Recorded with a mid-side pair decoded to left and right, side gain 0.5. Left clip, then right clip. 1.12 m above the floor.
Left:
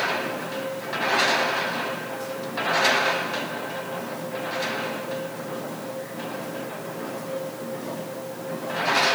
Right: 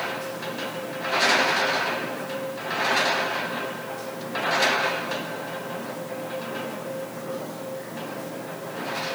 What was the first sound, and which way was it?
Only background noise.